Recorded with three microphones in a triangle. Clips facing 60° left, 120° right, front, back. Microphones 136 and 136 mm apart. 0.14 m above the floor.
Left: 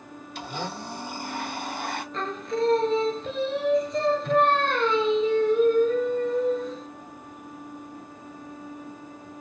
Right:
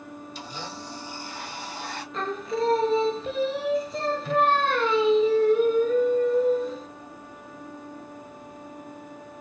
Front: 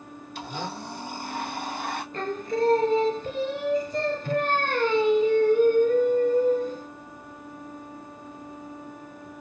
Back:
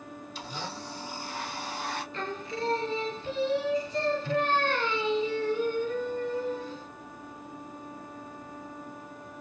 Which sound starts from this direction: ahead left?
A blender, at 0.3 s.